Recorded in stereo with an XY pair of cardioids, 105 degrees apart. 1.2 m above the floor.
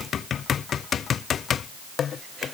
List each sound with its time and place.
Only background noise.